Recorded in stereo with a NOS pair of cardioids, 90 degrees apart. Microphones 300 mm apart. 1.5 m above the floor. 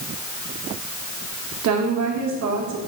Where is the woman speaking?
65° right, 1.7 m.